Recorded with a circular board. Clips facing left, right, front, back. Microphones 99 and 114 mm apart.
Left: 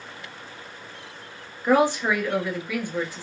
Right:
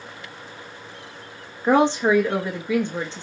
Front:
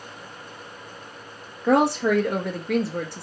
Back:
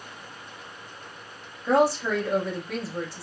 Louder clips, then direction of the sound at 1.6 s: Right 2 dB, front 2 dB; 25° right.